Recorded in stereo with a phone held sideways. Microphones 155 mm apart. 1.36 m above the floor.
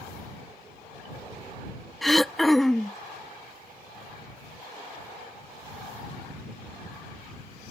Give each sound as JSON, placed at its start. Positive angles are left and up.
{"t": 2.0, "sound": "throat clearing", "side_deg": 0}